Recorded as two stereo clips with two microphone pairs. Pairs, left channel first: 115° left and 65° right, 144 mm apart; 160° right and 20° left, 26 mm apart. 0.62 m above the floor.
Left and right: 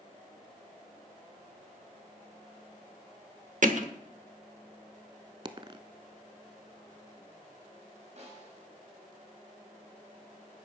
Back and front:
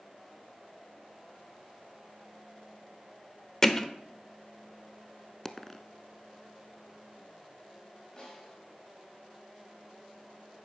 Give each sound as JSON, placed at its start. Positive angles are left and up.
{"t": 3.6, "sound": "hammering", "azimuth_deg": -90, "distance_m": 1.1}
{"t": 5.5, "sound": "a dropped coin", "azimuth_deg": -95, "distance_m": 0.7}
{"t": 8.2, "sound": "a snare drum", "azimuth_deg": -100, "distance_m": 5.0}